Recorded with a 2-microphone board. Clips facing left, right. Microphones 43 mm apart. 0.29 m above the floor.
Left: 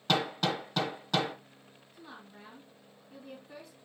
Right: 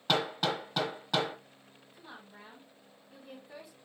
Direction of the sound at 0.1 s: 10° right (ahead or behind).